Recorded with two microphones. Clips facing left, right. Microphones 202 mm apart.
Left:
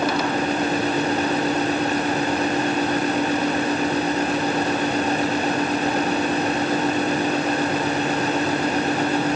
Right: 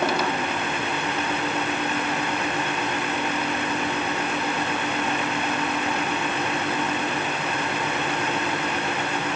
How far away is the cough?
I don't hear a cough.